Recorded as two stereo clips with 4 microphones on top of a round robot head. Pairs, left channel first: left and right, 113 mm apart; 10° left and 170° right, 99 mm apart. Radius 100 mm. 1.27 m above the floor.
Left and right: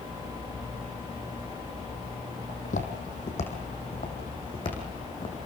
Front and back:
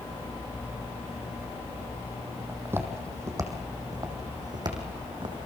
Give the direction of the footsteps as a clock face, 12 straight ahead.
8 o'clock.